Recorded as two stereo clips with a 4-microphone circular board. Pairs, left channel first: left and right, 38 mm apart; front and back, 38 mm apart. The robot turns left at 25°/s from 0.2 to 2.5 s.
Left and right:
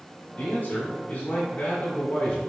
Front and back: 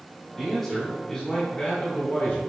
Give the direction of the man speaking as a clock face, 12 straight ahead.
9 o'clock.